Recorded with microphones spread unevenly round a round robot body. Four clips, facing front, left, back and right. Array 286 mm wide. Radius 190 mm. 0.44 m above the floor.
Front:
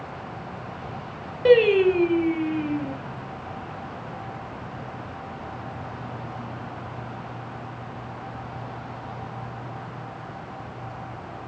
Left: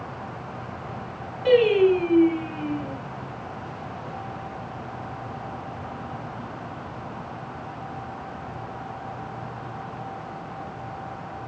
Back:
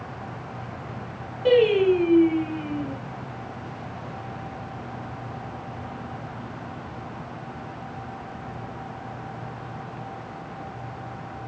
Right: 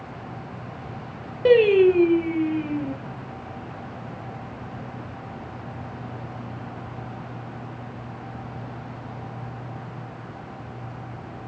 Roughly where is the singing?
Right.